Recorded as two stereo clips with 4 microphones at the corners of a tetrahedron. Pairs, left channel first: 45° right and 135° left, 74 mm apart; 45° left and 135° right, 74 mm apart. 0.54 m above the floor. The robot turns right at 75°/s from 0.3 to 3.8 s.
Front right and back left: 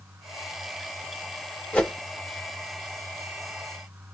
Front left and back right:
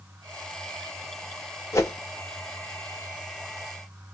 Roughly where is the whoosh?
Ahead.